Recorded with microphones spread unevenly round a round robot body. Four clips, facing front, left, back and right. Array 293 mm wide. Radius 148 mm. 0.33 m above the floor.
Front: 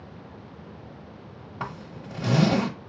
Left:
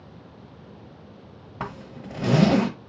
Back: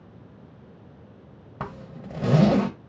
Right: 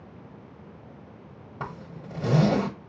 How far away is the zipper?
About 1.1 m.